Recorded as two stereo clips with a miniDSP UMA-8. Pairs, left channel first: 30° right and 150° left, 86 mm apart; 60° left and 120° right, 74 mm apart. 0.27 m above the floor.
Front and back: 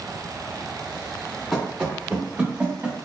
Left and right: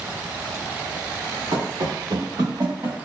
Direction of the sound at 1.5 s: 125° right.